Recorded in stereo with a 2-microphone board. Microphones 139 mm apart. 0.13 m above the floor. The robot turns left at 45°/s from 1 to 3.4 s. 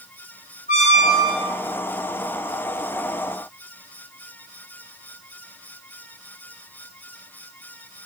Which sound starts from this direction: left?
A squeak, at 0.7 s.